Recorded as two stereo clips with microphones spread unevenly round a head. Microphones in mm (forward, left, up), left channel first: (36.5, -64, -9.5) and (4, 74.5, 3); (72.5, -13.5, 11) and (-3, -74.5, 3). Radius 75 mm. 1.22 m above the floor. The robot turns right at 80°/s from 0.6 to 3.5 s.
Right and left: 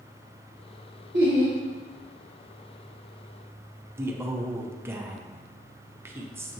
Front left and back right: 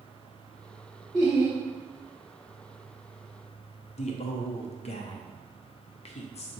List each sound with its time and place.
1.1 s laughter: 130° left, 0.9 m; by 1.6 s 165° left, 0.9 m
4.0 s a man speaking: 30° left, 0.7 m